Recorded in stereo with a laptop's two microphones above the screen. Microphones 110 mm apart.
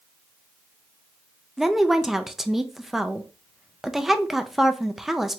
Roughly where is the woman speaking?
Centre.